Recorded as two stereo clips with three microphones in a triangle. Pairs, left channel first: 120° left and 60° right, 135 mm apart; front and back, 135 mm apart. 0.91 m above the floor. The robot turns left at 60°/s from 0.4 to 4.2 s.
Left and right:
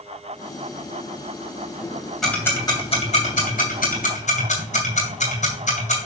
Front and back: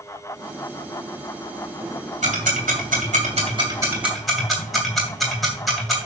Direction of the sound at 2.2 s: 150° right.